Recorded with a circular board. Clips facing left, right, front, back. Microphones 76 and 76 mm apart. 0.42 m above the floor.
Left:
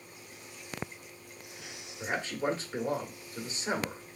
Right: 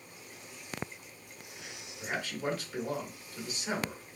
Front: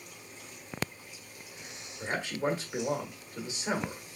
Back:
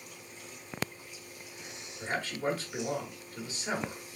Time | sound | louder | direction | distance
2.0 | a man speaking | left 3 dB, front 1 dB | 55° left | 1.3 m